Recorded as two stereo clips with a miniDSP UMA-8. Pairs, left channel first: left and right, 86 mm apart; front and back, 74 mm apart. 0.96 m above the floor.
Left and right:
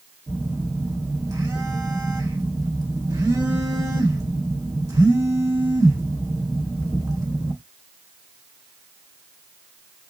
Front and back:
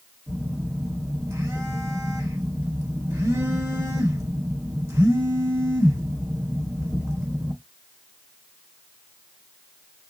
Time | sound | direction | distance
0.3 | a phone buzzing | 130° right | 1.7 m